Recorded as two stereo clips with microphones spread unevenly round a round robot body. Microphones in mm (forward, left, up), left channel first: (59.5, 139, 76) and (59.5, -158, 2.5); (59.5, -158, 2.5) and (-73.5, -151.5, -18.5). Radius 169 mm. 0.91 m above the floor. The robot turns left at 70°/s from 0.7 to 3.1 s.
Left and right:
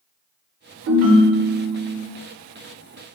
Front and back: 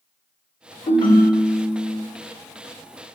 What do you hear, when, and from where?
0.9 s a ringtone: 40° right, 1.3 m; by 2.0 s 120° right, 1.3 m